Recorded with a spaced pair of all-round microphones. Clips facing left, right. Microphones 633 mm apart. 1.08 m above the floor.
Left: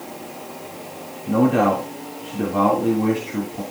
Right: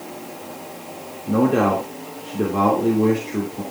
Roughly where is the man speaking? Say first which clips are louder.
Even; centre.